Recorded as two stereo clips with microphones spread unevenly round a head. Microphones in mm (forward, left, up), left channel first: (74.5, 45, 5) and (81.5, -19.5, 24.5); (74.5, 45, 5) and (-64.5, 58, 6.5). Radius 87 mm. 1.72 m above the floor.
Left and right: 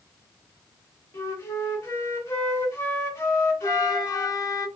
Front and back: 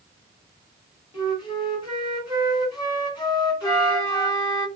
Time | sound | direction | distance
1.1 | a flute | 40° left | 1.7 m
3.6 | a flute | 60° left | 1.2 m